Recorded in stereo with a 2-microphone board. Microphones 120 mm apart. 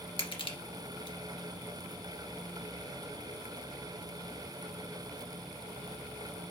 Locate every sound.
0.2 s crushing: 45° left (ahead or behind), 2 m